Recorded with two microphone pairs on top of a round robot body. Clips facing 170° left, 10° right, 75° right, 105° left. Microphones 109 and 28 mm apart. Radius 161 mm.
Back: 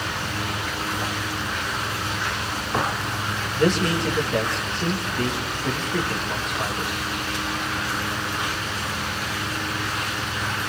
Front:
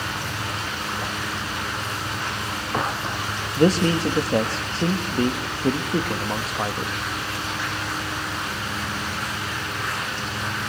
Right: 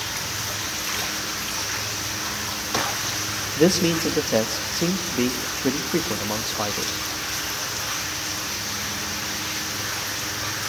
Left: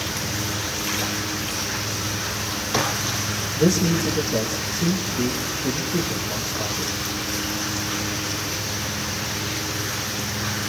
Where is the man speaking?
55° right, 2.0 m.